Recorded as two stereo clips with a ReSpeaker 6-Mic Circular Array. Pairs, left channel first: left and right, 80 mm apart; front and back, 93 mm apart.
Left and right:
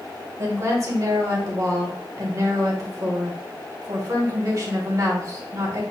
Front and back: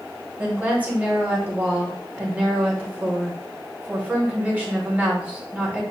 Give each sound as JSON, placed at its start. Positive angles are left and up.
{"t": 0.4, "sound": "a woman speaking", "azimuth_deg": -115, "distance_m": 1.6}